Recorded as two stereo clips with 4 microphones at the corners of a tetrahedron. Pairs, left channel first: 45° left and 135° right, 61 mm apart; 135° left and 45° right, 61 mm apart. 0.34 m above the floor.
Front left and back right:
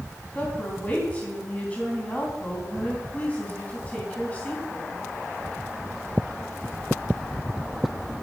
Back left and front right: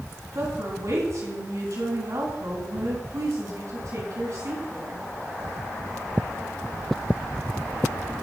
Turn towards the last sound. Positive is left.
turn(degrees=-20)